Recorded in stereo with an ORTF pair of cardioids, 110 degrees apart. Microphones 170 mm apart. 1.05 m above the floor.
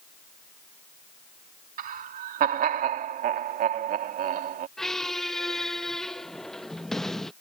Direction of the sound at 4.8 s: Straight ahead.